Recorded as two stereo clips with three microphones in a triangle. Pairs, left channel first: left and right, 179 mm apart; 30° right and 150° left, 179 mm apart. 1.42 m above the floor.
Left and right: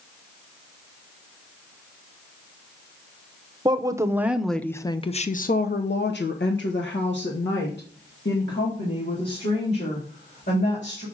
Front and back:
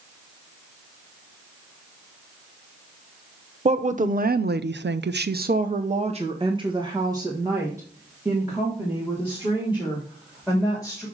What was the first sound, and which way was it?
A woman speaking, 155° right.